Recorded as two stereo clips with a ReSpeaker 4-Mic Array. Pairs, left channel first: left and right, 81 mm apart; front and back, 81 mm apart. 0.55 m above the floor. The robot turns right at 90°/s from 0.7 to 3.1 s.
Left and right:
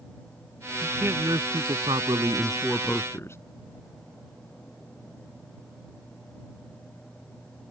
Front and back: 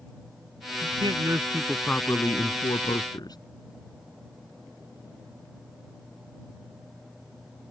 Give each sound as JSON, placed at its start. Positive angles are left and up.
{"t": 0.8, "sound": "a man speaking", "azimuth_deg": -175}